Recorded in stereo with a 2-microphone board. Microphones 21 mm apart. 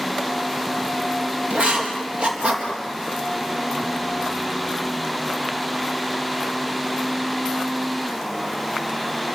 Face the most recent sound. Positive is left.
turn(degrees=-60)  # may be behind; listen again after turning